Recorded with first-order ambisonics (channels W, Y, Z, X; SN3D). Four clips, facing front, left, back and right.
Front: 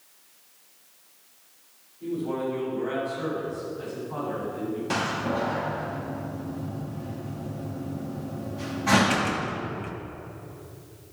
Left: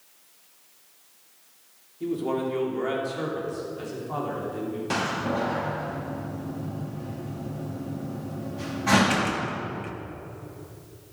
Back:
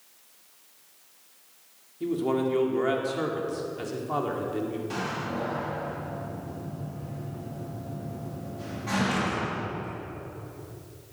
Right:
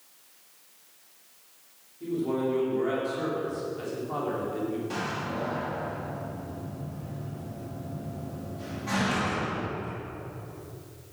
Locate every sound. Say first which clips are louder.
2.0 s a man speaking: left 1 dB, back 3 dB; 150° left, 2.5 m; by 4.8 s 175° right, 3 m
4.9 s a door slam: left 5 dB, front 5 dB; 45° left, 1.2 m